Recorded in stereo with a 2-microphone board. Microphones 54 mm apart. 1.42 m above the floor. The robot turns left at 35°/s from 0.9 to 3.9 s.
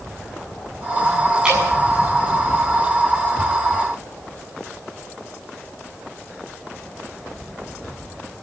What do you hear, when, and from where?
1.4 s dripping: 15° right (ahead or behind), 7 m; by 1.6 s 20° right (ahead or behind), 7 m